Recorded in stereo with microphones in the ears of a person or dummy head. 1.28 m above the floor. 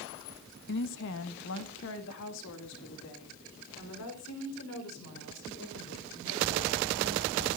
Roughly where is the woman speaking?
Left.